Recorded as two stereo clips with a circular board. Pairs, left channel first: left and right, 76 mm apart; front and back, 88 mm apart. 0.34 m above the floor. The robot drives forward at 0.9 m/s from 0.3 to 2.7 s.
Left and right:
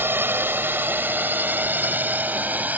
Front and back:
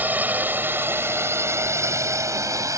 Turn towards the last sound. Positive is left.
turn(degrees=-150)